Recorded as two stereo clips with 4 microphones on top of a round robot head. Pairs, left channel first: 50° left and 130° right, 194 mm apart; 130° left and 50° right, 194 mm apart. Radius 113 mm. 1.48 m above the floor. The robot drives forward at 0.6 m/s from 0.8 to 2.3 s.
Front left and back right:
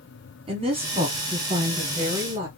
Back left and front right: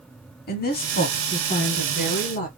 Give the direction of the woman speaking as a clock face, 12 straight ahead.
6 o'clock.